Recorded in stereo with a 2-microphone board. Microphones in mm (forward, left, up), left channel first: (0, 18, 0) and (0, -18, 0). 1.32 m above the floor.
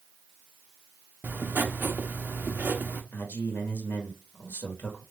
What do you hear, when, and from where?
1.2 s writing: 60° right (ahead or behind), 0.7 m
3.1 s a man speaking: 70° left (ahead or behind), 1.4 m